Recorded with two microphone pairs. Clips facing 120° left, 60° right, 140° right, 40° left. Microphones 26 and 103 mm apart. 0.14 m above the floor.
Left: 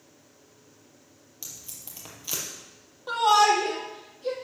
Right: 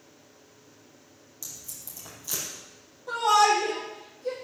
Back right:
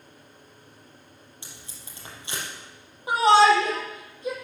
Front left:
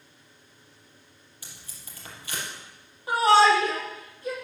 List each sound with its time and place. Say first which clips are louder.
1.4 s tape being pulled: even, back right 1 dB; 155° left, 4.5 m
3.1 s a shout: left 1 dB, back right 2 dB; 150° left, 5.5 m